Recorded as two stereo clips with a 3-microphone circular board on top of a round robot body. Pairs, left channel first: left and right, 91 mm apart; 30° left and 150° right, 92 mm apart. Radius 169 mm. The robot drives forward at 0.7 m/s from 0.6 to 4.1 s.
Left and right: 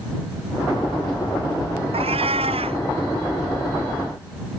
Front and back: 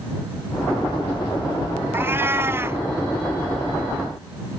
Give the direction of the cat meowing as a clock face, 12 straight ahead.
3 o'clock.